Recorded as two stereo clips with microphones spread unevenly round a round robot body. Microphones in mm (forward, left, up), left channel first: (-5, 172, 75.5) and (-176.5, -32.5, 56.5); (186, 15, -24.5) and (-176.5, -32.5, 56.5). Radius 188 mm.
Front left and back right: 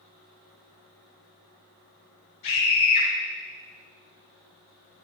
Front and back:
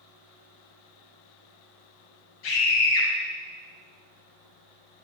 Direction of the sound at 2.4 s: 30° left.